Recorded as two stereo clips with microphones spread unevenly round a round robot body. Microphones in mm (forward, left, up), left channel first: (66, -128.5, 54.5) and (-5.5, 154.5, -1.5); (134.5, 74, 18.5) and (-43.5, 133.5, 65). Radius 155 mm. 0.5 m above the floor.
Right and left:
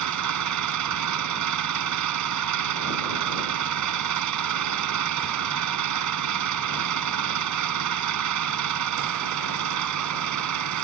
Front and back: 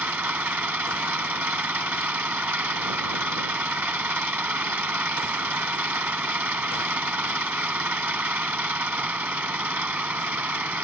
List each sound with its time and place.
0.0 s an engine running: 80° left